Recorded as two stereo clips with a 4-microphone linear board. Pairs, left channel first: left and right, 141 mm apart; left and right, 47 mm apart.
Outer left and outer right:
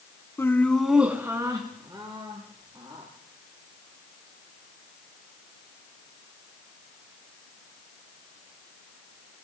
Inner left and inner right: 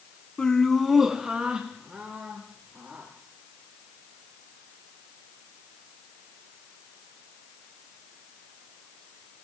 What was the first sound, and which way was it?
Laughter, 20° left (ahead or behind).